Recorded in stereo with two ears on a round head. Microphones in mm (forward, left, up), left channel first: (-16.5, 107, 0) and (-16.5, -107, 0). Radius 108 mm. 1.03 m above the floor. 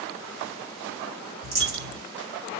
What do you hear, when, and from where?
1.4 s a dropped coin: 50° right (ahead or behind), 1.7 m